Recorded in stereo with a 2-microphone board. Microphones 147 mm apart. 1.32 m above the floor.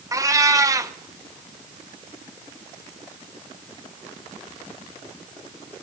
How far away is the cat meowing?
About 0.7 m.